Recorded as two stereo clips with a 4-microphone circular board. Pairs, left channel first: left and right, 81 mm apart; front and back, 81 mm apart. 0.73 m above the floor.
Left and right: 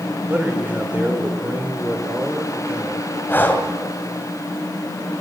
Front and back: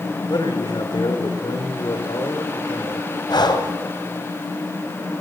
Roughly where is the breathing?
Ahead left.